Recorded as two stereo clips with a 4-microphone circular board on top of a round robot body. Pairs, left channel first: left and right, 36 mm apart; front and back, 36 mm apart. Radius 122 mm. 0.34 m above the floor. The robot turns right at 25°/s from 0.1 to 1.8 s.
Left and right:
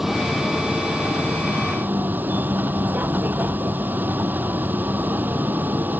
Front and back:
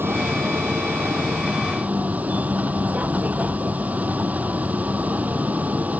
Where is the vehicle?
175° right; by 6.0 s 130° right.